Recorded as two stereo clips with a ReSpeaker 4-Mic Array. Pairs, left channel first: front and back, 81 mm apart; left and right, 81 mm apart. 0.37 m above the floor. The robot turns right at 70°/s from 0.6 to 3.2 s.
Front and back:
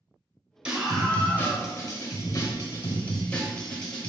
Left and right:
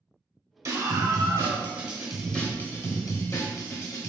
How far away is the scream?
About 1.2 m.